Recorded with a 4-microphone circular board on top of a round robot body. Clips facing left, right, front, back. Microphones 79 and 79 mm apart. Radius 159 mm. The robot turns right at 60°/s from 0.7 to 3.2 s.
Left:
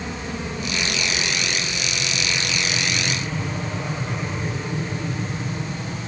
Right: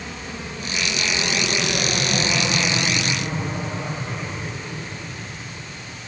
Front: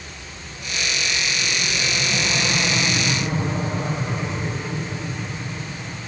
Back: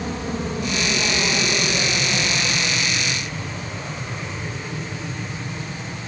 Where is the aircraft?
165° left; by 6.1 s 110° left.